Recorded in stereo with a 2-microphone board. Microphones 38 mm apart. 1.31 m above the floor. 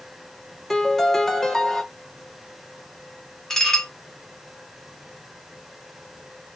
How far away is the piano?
About 0.8 m.